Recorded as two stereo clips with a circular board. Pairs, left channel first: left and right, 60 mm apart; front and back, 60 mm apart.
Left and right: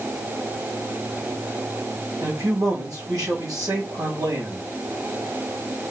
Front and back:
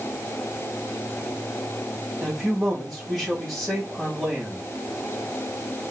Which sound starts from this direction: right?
A man speaking, at 2.2 s.